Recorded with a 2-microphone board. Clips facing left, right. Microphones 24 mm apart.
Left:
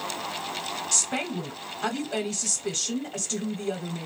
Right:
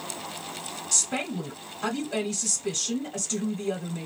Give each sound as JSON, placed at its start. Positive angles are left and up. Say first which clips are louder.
{"t": 0.9, "sound": "a woman speaking", "louder": "right 1 dB", "side_deg": 10, "distance_m": 1.1}